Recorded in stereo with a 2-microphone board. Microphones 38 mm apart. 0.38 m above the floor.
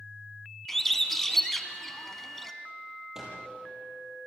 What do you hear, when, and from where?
0.7 s a bird: 10° left (ahead or behind), 1.4 m
3.1 s a microwave: 15° right (ahead or behind), 7.5 m